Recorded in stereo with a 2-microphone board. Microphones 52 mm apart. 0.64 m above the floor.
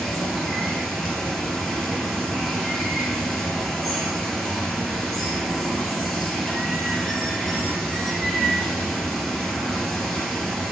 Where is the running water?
Centre (ahead or behind), 1.7 m.